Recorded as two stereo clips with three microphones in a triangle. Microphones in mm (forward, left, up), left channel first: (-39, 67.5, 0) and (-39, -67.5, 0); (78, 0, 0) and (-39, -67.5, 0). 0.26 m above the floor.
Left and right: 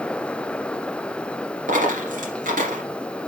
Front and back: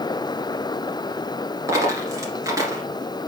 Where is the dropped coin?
85° right, 2 m.